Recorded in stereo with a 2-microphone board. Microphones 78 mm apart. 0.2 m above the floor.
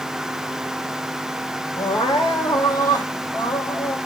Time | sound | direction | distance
1.8 | crying | 80° left | 4 m